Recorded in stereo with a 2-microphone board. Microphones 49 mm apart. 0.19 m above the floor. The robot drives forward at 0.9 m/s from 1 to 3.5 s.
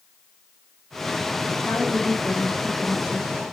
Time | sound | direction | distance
1.6 | a woman speaking | 35° right (ahead or behind) | 1.8 m